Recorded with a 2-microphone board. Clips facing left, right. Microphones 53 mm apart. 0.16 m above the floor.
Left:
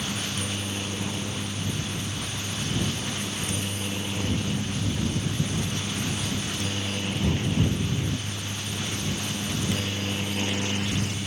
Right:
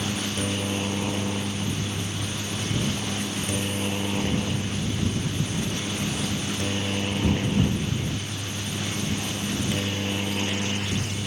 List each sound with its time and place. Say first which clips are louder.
0.0 s a helicopter: right 3 dB; 35° right (ahead or behind); by 11.3 s 15° right (ahead or behind)